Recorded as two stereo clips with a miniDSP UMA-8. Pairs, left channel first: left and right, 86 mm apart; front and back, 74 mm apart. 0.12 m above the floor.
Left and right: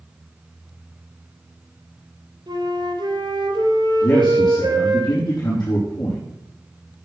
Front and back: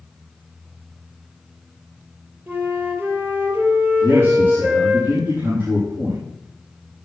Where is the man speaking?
130° left, 5 m.